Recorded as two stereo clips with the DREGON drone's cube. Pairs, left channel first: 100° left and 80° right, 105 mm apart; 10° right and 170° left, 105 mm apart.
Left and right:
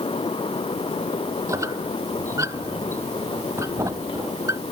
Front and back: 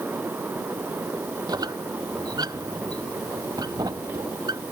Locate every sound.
1.5 s a squeak: 140° right